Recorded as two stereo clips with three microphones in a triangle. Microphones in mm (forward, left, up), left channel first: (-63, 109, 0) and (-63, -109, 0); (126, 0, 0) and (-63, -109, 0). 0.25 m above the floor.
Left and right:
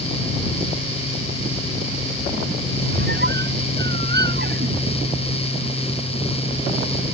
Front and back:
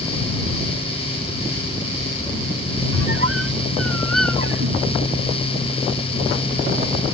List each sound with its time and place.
2.9 s a squeak: 135° right